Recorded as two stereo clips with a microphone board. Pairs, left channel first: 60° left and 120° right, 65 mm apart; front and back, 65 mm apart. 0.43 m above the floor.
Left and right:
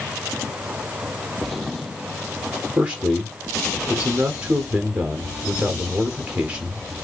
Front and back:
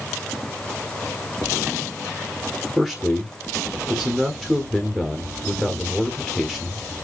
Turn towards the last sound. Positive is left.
turn(degrees=-85)